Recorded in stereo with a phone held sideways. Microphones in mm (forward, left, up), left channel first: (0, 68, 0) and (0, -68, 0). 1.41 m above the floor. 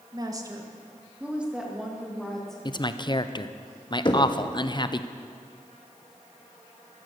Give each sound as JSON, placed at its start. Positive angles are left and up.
{"t": 0.1, "sound": "a woman speaking", "side_deg": -30, "distance_m": 1.3}
{"t": 2.6, "sound": "a man speaking", "side_deg": 35, "distance_m": 0.6}
{"t": 4.0, "sound": "knocking", "side_deg": 35, "distance_m": 1.2}